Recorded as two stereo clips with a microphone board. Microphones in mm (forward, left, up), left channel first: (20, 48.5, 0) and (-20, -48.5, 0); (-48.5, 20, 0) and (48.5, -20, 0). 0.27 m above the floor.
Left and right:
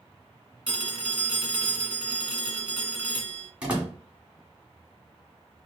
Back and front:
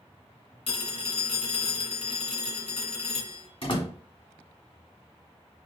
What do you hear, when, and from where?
0.7 s a phone ringing: 170° left, 1.8 m
3.6 s a door slam: 170° left, 1.7 m